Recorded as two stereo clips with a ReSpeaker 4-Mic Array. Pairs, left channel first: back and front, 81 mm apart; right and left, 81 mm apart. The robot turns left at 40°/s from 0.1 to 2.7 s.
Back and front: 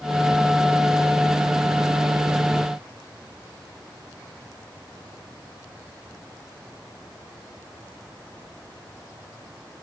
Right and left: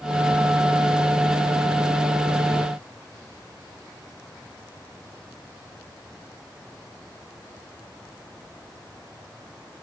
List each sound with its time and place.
Only background noise.